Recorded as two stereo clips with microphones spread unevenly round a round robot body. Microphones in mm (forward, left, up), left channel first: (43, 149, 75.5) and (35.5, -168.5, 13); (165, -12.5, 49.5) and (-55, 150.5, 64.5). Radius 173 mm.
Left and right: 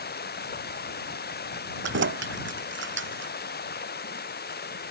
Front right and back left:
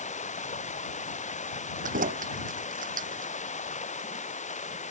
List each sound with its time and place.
0.0 s running water: 30° left
1.8 s keys jangling: 150° right